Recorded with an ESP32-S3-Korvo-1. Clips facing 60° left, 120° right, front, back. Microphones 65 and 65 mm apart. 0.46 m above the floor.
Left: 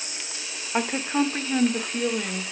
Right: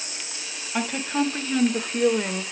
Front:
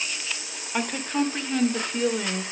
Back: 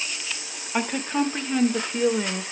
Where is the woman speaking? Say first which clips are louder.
Left 1 dB, back 1 dB; 100° left, 1.0 m; by 2.4 s 110° right, 0.7 m.